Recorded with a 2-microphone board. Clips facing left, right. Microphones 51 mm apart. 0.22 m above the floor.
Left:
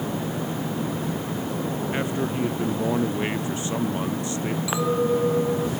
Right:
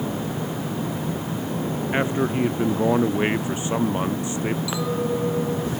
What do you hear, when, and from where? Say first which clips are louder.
1.9 s a man speaking: right 6 dB; 25° right (ahead or behind); by 4.6 s 20° right (ahead or behind)
4.7 s a clink: left 2 dB; 20° left (ahead or behind)